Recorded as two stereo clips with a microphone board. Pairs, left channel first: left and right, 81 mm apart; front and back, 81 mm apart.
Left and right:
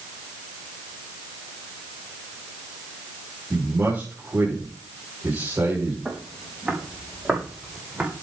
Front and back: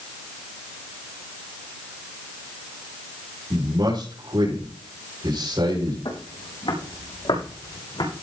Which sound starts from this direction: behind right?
A man speaking, at 3.5 s.